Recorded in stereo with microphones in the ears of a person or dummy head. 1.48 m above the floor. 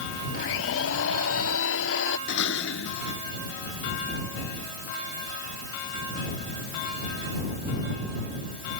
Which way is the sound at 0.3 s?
80° left.